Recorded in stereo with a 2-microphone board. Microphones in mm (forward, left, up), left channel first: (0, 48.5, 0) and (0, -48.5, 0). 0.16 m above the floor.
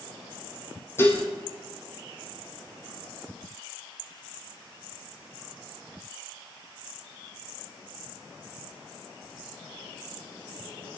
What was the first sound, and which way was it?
Dishes clattering, 25° left (ahead or behind).